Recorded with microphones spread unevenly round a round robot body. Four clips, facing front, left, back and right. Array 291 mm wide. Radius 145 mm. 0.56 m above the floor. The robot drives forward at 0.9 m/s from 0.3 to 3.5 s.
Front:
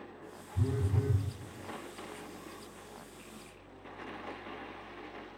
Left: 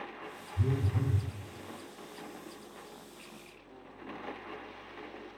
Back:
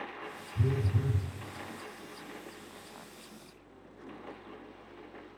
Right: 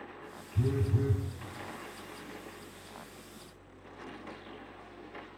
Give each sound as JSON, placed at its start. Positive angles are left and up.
{"t": 0.6, "sound": "a phone buzzing", "azimuth_deg": -95, "distance_m": 7.5}